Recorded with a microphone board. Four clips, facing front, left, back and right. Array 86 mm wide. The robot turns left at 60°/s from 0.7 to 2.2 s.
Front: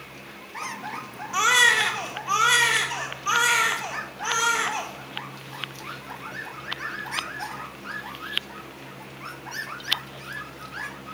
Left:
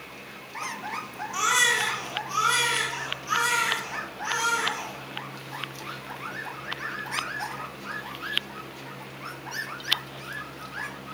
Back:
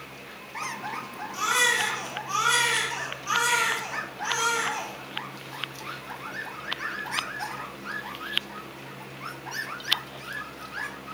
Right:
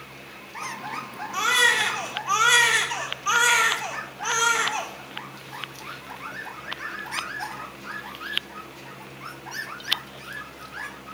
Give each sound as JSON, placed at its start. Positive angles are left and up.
{"t": 1.3, "sound": "a baby crying", "azimuth_deg": -5, "distance_m": 2.0}